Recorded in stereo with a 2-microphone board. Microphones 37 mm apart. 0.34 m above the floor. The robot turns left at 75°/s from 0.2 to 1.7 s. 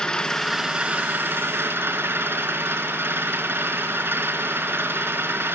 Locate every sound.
0.0 s an engine running: 15° left, 2.5 m; by 5.5 s 95° right, 2.5 m